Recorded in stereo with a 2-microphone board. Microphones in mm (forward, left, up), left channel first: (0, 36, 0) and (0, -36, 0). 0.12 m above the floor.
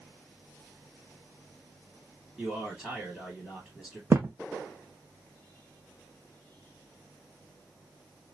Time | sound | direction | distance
2.4 | a man speaking | 5° left (ahead or behind) | 2.5 m
4.1 | a thud | 30° right (ahead or behind) | 0.7 m